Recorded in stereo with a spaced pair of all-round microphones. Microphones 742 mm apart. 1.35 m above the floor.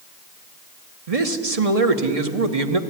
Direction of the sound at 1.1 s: 50° right (ahead or behind).